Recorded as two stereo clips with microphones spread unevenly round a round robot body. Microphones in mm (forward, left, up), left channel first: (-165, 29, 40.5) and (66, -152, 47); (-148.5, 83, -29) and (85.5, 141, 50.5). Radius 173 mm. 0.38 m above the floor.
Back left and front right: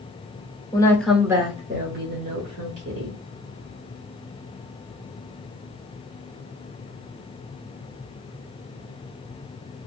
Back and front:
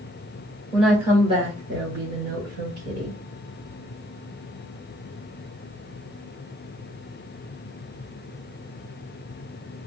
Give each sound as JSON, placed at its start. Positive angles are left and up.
{"t": 0.7, "sound": "a woman speaking", "azimuth_deg": -175, "distance_m": 0.8}